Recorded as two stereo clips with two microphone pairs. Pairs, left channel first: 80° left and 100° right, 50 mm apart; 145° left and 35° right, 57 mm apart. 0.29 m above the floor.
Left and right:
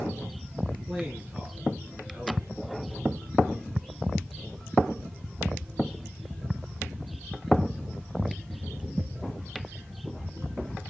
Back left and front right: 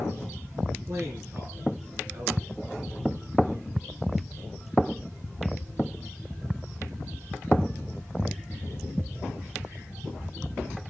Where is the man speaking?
5° right, 4.5 m.